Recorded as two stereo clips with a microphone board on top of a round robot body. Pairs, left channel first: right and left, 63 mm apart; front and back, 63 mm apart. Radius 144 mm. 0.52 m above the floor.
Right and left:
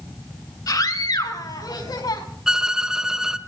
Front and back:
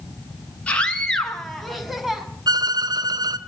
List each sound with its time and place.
0.7 s a scream: 70° right, 4.5 m; by 2.2 s 95° right, 5.5 m
2.5 s a violin: 170° left, 1.4 m